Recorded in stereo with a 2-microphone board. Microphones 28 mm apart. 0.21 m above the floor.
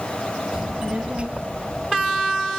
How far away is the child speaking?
About 2 m.